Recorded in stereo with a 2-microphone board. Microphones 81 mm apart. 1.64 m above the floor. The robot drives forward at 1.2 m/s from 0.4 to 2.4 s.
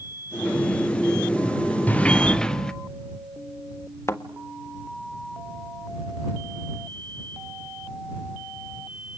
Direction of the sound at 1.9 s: 20° left (ahead or behind).